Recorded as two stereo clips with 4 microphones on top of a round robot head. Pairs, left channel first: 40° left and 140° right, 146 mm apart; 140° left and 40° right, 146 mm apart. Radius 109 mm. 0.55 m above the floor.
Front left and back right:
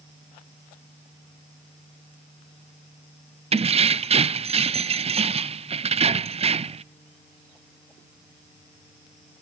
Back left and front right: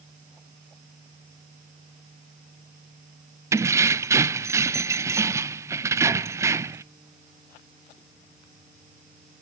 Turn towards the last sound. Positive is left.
turn(degrees=-105)